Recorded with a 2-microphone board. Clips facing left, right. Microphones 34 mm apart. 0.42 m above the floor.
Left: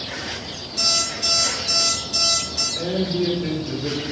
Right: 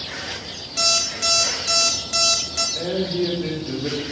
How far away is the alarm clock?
About 1.0 m.